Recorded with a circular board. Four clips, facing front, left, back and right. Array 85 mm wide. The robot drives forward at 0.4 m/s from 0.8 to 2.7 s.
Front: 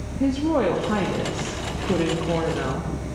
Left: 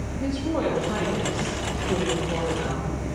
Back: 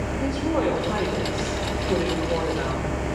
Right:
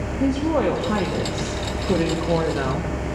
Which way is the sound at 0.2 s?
45° right.